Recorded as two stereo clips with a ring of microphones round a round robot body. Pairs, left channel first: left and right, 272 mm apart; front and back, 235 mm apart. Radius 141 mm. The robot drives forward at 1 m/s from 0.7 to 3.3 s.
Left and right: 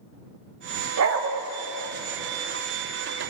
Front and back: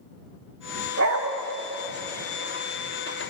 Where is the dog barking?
130° right, 1.9 m; by 1.3 s 140° right, 2 m.